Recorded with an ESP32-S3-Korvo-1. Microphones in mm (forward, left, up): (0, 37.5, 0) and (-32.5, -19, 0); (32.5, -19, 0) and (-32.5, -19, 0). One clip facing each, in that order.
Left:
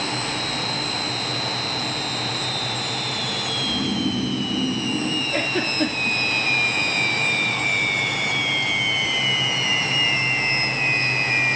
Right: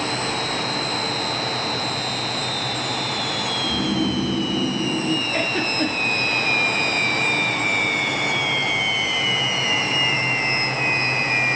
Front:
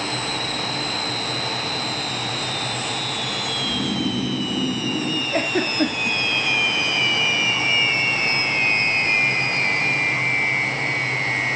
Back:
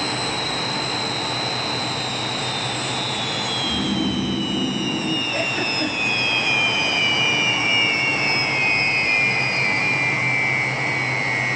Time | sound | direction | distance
3.6 | snoring | 105° right | 7 m
5.3 | a giggle | 40° right | 2.5 m